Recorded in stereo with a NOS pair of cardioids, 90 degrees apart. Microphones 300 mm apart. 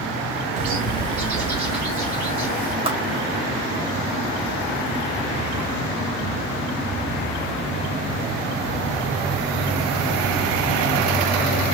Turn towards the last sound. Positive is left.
turn(degrees=-20)